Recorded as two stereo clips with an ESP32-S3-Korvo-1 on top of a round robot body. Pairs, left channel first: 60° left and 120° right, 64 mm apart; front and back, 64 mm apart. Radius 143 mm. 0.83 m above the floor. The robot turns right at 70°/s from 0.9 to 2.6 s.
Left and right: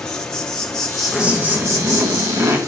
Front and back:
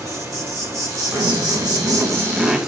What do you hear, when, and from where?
0.0 s an insect: 140° left, 1.8 m; by 2.7 s 105° right, 1.8 m
1.1 s a zipper: 170° left, 1.6 m; by 2.6 s 90° right, 1.6 m